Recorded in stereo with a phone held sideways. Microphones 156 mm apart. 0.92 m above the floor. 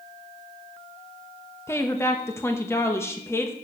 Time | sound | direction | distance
1.7 | a woman speaking | 15° left (ahead or behind) | 1.1 m